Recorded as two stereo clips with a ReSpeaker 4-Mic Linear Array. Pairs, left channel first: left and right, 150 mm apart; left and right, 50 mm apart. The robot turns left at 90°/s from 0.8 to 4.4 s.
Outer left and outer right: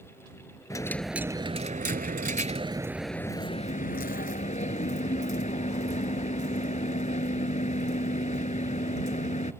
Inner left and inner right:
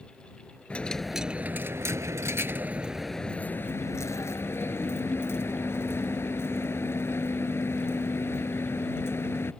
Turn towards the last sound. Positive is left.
turn(degrees=60)